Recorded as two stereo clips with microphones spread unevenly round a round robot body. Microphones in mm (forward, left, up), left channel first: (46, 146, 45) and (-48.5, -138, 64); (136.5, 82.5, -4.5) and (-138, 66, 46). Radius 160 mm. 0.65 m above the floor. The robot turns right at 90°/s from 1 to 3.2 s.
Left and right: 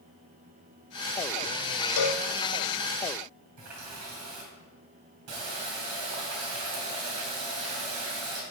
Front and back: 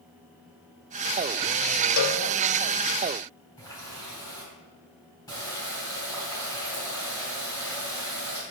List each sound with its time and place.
2.0 s a cowbell: 35° left, 0.5 m; by 2.2 s 60° left, 0.5 m
3.6 s a running tap: 75° right, 3 m